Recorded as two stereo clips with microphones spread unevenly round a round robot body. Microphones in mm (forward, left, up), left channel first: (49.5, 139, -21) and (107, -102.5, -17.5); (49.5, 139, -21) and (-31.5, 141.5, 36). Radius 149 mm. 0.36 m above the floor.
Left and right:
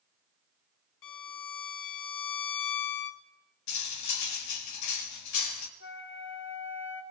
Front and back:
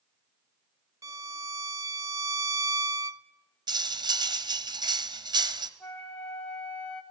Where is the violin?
120° left, 0.7 m.